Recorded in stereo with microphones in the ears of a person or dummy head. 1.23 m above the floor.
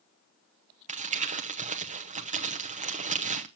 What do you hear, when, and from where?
0.9 s crumpling: 30° right (ahead or behind), 0.7 m